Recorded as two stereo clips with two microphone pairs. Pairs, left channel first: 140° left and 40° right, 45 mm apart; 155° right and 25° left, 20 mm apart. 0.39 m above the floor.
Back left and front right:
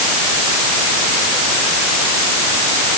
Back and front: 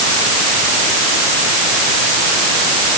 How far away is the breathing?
I don't hear breathing.